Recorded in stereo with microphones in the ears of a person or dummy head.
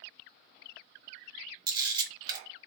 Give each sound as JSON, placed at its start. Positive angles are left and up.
{"t": 1.7, "sound": "a camera shutter", "side_deg": -20, "distance_m": 1.4}